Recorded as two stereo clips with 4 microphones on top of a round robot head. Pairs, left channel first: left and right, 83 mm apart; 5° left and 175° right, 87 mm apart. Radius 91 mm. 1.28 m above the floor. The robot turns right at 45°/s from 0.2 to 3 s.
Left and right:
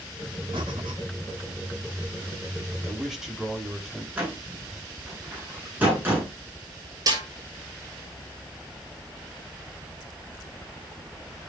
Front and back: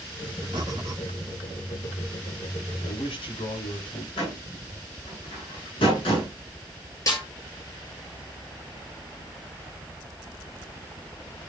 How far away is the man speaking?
About 4 m.